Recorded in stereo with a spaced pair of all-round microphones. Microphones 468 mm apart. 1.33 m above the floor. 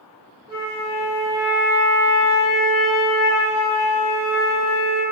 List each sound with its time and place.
0.5 s a flute: 25° right (ahead or behind), 1.9 m